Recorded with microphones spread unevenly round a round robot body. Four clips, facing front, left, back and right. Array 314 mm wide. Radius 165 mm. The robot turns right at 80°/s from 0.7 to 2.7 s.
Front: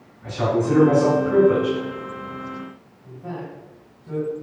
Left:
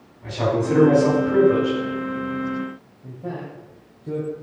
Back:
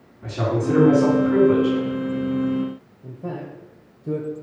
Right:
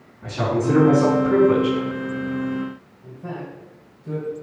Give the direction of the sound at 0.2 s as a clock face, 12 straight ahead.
5 o'clock.